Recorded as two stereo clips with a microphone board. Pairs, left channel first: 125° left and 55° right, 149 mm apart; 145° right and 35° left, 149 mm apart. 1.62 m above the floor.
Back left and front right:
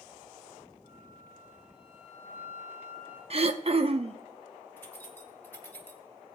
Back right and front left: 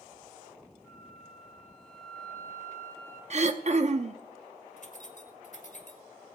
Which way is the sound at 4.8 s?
160° right.